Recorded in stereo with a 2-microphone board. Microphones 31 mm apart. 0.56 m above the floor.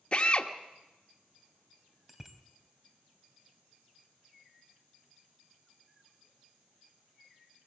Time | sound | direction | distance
0.1 | a drill | 40° left (ahead or behind) | 1.3 m
2.1 | a bicycle bell | 10° right (ahead or behind) | 2 m